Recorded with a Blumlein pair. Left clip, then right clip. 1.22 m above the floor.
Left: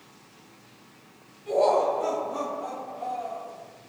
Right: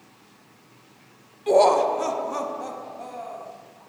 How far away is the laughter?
About 0.6 m.